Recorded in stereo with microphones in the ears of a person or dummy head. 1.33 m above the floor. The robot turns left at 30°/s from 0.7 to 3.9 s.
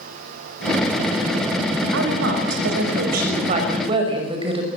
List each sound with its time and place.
1.9 s a woman speaking: 90° right, 5.5 m; by 4.7 s 150° right, 5.5 m